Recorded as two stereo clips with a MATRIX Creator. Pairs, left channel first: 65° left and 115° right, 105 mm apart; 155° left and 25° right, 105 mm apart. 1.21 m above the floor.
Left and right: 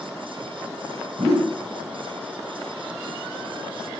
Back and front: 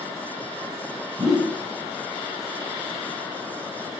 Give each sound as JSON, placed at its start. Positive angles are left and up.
{"t": 1.2, "sound": "a whoosh", "azimuth_deg": -70, "distance_m": 1.7}